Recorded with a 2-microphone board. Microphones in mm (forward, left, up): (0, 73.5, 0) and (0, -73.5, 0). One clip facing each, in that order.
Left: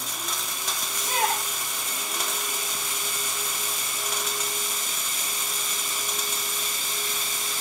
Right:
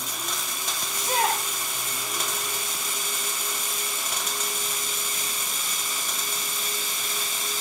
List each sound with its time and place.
0.9 s a shout: 10° right (ahead or behind), 8.5 m